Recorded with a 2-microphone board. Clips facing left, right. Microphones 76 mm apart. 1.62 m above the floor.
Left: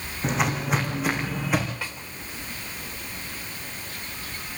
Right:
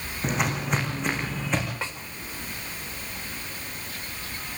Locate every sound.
0.2 s footsteps: centre (ahead or behind), 4 m; by 1.7 s 10° left (ahead or behind), 4.5 m
1.8 s a snare drum: 25° right (ahead or behind), 3.5 m